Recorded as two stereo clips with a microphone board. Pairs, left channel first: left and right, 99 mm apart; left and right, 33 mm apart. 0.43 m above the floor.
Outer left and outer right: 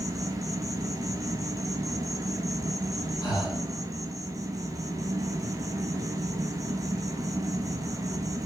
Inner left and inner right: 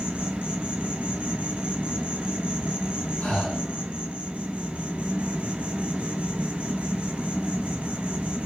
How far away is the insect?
About 0.7 m.